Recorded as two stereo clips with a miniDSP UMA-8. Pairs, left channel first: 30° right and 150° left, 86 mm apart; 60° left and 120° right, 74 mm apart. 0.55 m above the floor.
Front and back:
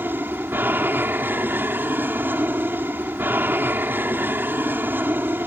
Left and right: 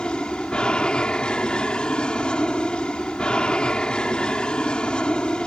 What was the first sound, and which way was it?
An aircraft, 120° left.